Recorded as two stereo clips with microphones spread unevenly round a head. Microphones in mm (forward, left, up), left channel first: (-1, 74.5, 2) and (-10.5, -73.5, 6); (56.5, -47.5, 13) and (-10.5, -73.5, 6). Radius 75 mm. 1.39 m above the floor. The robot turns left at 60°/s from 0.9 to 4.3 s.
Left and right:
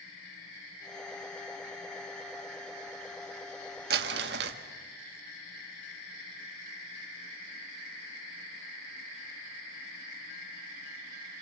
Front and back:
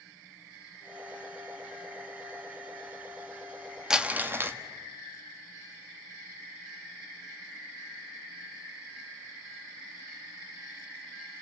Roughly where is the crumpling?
Right.